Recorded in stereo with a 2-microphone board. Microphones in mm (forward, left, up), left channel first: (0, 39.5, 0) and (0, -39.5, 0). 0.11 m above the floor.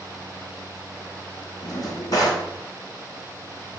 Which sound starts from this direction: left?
A drawer, at 1.6 s.